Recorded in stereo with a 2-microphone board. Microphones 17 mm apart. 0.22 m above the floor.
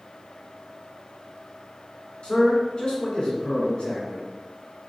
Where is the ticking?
I don't hear ticking.